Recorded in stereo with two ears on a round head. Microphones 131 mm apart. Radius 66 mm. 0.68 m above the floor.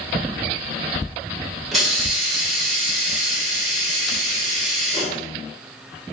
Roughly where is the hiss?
Centre.